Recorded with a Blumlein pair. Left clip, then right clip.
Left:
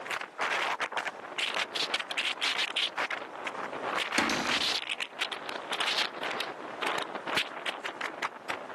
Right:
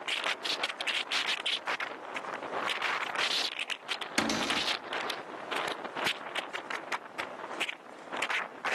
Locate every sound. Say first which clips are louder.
4.2 s a cupboard door: even; 5° right, 0.5 m